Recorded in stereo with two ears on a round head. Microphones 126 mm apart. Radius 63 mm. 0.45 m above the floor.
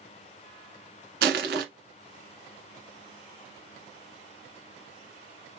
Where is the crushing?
80° right, 0.9 m.